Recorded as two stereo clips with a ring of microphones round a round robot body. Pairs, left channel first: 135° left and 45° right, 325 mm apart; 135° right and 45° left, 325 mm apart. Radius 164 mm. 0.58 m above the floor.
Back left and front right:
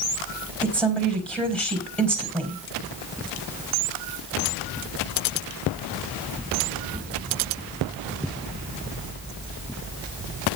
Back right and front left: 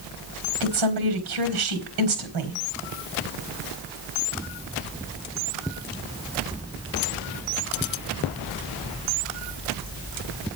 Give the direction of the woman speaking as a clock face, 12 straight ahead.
10 o'clock.